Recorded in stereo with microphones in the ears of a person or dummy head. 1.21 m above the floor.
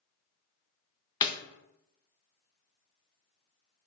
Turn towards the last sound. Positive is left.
turn(degrees=25)  # may be behind; listen again after turning